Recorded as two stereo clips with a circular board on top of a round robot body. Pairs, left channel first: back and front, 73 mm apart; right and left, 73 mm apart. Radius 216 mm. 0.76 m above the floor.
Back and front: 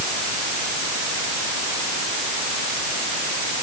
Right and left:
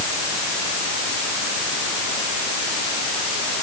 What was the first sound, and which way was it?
Only background noise.